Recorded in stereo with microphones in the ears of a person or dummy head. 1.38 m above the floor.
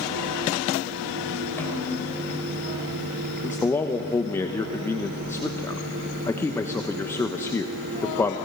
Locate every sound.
1.6 s a snare drum: 10° left (ahead or behind), 5.5 m
3.4 s a man speaking: 10° left (ahead or behind), 0.9 m